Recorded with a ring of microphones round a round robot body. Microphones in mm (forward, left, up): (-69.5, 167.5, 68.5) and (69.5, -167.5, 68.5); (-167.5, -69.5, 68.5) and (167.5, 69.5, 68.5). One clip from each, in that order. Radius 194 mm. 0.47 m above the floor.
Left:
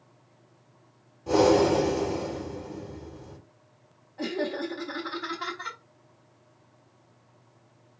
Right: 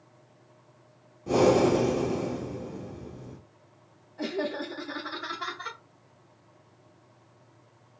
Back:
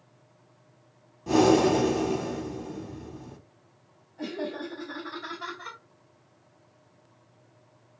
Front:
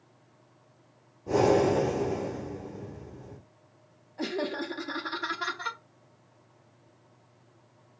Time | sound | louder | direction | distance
1.3 | breathing | left 1 dB, back 2 dB | 170° right | 2.5 m
4.2 | laughter | left 1 dB, front 2 dB | 35° left | 0.9 m